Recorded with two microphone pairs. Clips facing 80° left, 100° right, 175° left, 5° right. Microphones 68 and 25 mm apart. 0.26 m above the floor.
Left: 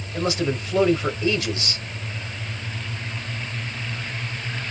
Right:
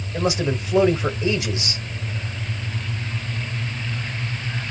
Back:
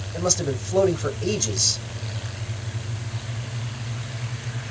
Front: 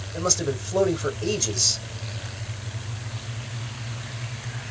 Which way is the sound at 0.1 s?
120° right.